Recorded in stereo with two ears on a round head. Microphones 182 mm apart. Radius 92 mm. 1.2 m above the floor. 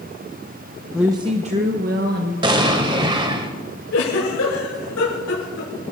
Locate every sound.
0.9 s a woman speaking: centre (ahead or behind), 0.5 m; by 2.3 s 50° right (ahead or behind), 1.7 m
2.4 s an explosion: 25° right (ahead or behind), 1.2 m
3.9 s a giggle: 80° left, 7 m